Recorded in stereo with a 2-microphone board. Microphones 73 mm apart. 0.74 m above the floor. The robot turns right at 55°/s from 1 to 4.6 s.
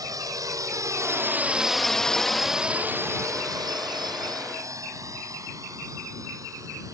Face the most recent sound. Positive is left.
turn(degrees=-50)  # may be behind; listen again after turning